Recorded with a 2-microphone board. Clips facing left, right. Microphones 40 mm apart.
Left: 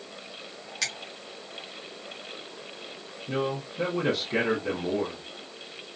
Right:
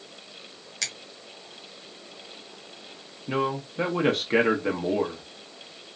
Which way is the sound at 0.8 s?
5° left (ahead or behind).